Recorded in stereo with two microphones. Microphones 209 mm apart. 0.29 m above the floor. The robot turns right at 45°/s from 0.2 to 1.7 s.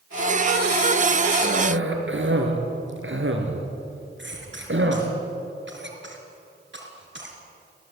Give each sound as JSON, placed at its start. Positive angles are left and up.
{"t": 1.4, "sound": "a cough", "side_deg": -55, "distance_m": 4.0}
{"t": 4.2, "sound": "a cough", "side_deg": -65, "distance_m": 4.5}